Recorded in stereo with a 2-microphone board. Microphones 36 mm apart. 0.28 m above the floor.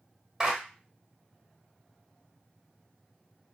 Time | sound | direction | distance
0.4 | a clap | 10° right (ahead or behind) | 1.5 m